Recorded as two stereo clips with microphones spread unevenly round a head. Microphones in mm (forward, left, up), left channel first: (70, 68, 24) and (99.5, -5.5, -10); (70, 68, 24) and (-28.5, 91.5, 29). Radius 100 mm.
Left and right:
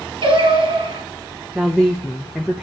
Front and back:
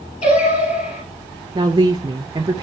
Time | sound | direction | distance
0.2 | singing | 45° right | 5.5 m
1.6 | a woman speaking | 140° right | 0.6 m